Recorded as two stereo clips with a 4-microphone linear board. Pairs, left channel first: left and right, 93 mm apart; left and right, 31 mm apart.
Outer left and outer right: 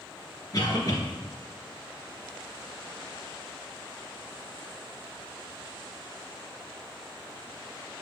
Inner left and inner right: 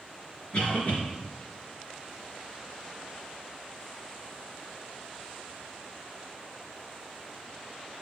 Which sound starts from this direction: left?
A cough, at 0.5 s.